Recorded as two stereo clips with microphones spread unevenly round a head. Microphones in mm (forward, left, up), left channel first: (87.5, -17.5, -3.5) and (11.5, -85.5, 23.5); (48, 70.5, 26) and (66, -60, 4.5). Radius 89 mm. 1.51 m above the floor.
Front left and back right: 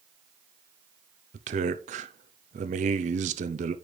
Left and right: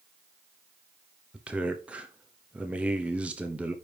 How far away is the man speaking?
About 0.6 m.